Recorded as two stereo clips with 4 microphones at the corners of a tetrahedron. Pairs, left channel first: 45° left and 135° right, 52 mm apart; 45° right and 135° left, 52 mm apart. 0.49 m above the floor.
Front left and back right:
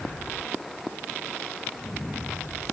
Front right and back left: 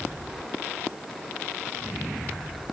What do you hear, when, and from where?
Only background noise.